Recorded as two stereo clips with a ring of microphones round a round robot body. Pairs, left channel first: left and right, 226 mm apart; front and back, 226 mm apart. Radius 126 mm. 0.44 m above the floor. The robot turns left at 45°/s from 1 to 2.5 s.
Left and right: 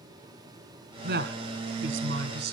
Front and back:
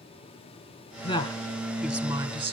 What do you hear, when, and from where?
1.0 s a woman speaking: 55° right, 1.9 m; by 2.5 s 120° right, 1.9 m